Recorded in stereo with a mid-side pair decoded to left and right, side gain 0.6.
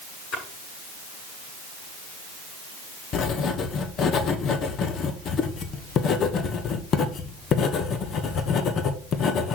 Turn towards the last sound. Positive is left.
turn(degrees=50)